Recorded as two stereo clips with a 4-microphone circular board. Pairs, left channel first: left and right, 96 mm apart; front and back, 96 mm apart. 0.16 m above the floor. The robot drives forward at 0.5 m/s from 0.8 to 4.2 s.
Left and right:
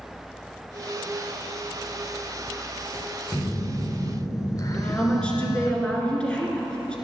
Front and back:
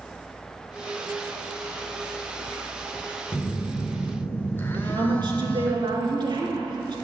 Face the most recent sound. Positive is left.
turn(degrees=165)